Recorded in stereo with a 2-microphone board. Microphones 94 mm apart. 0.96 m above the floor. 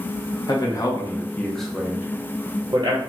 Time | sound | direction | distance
0.5 | a man speaking | 45° left (ahead or behind) | 1.0 m